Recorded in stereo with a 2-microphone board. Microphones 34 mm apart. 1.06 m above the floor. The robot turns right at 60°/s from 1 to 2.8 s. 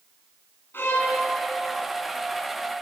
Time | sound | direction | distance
0.7 | a violin | 70° left (ahead or behind) | 5.5 m